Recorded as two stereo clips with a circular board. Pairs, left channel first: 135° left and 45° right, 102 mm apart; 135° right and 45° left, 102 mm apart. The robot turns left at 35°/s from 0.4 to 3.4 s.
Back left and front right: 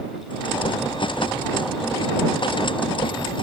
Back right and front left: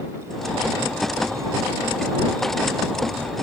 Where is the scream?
No scream in this recording.